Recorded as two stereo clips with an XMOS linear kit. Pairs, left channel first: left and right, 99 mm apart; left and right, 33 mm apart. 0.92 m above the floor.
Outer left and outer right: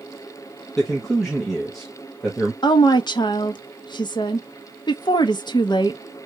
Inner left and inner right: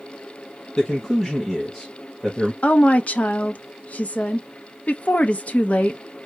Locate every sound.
0.8 s a man speaking: centre (ahead or behind), 1.2 m
2.6 s a woman speaking: 50° left (ahead or behind), 0.8 m